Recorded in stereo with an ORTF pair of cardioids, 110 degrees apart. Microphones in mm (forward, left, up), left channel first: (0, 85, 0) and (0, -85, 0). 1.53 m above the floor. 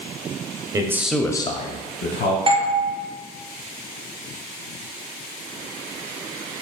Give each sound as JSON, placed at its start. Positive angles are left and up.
{"t": 0.7, "sound": "a man speaking", "azimuth_deg": -20, "distance_m": 0.6}
{"t": 2.5, "sound": "a doorbell", "azimuth_deg": -35, "distance_m": 1.0}